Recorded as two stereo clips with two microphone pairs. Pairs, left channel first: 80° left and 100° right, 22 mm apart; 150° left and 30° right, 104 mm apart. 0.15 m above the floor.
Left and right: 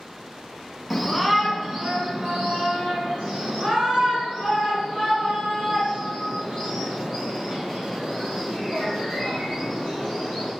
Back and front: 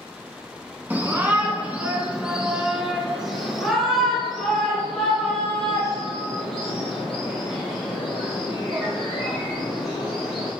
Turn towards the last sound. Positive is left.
turn(degrees=-125)